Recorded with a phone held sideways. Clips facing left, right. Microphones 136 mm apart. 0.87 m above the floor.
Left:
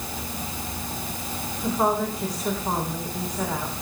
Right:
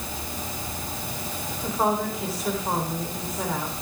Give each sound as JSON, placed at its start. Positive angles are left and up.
{"t": 1.6, "sound": "a woman speaking", "side_deg": -5, "distance_m": 3.5}